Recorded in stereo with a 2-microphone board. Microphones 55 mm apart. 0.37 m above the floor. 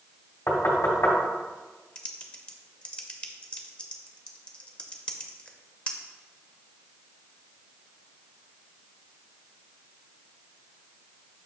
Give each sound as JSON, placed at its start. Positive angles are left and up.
{"t": 0.5, "sound": "knocking", "side_deg": 50, "distance_m": 1.6}
{"t": 1.9, "sound": "typing on a keyboard", "side_deg": 20, "distance_m": 0.7}